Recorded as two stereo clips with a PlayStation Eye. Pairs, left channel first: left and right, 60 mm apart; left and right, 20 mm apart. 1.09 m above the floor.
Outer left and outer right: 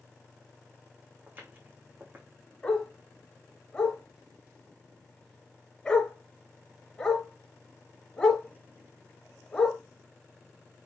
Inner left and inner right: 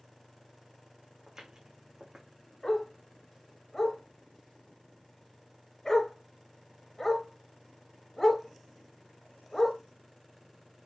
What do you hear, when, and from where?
1.3 s footsteps: 30° right (ahead or behind), 3 m
2.6 s a dog barking: 15° left (ahead or behind), 4.5 m